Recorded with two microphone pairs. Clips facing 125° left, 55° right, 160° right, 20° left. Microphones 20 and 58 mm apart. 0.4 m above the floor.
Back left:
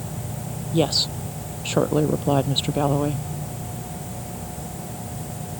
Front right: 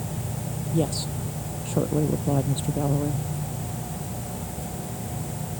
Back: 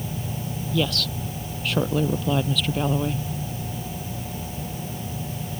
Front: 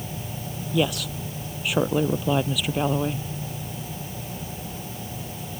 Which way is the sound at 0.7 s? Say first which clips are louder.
Back left 6 dB, front 1 dB; 90° left.